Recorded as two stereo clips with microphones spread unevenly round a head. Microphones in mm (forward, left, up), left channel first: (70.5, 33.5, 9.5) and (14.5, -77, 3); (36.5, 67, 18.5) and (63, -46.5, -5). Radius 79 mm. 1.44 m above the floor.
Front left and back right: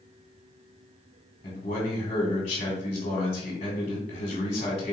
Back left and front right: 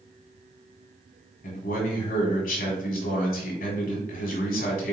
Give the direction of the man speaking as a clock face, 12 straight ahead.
8 o'clock.